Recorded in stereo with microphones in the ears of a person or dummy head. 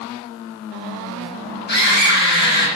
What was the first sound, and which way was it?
A scream, 50° left (ahead or behind).